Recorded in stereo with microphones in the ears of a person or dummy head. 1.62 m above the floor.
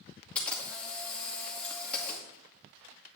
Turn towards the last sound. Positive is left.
turn(degrees=10)  # may be behind; listen again after turning